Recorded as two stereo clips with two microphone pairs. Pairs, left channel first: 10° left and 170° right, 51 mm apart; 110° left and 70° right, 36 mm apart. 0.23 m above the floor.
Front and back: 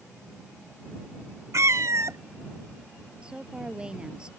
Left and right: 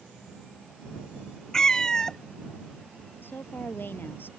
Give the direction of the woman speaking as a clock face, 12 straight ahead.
8 o'clock.